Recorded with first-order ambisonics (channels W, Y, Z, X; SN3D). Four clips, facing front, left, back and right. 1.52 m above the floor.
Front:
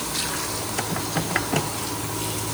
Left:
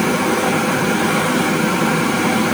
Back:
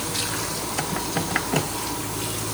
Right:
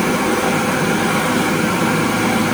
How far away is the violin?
I don't hear a violin.